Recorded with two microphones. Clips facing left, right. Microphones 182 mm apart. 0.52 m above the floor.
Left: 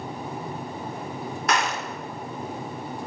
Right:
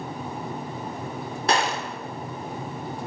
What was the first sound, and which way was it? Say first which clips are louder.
A gunshot: right 2 dB; 30° right (ahead or behind).